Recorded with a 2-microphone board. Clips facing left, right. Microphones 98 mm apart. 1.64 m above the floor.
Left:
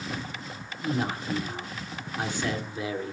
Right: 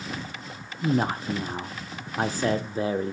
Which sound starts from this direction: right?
A man speaking, at 0.8 s.